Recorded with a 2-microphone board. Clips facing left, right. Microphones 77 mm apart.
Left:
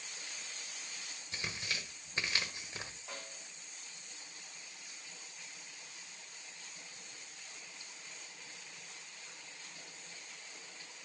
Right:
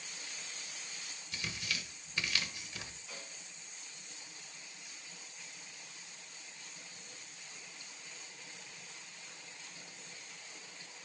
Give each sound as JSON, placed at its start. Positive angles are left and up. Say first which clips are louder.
{"t": 1.3, "sound": "tearing paper", "louder": "even", "side_deg": 30, "distance_m": 1.3}
{"t": 3.1, "sound": "a snare drum", "louder": "left 2 dB", "side_deg": 55, "distance_m": 3.0}